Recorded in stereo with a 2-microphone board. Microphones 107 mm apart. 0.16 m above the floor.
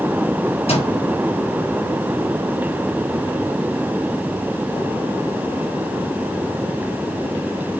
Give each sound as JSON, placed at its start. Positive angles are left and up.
{"t": 0.7, "sound": "a microwave", "side_deg": 70, "distance_m": 3.5}